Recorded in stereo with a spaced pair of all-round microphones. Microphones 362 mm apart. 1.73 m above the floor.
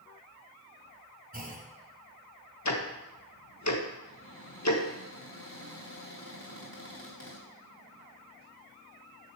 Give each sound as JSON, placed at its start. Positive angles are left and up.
{"t": 1.3, "sound": "a clunk", "side_deg": -25, "distance_m": 1.9}
{"t": 2.6, "sound": "ticking", "side_deg": 50, "distance_m": 1.3}
{"t": 4.0, "sound": "a cupboard door", "side_deg": 40, "distance_m": 4.0}